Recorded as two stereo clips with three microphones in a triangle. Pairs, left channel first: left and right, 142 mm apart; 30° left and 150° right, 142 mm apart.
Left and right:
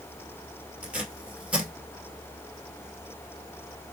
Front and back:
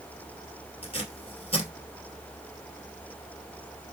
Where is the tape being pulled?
10° right, 1.7 m.